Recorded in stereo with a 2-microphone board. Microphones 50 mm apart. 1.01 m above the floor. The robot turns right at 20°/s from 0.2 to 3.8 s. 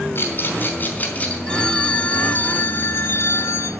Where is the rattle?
55° left (ahead or behind), 3 m; by 1.4 s 35° left (ahead or behind), 3 m.